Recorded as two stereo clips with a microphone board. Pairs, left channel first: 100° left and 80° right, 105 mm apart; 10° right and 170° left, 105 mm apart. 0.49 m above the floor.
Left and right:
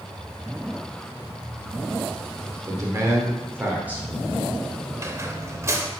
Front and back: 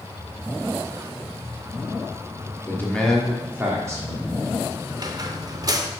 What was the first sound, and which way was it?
A man speaking, 65° right.